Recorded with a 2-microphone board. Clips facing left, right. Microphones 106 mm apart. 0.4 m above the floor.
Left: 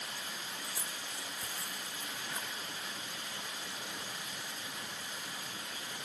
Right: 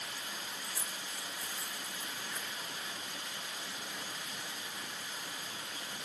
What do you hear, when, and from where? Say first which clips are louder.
0.6 s keys jangling: even; 70° left (ahead or behind), 2.5 m; by 2.5 s 75° left (ahead or behind), 5.5 m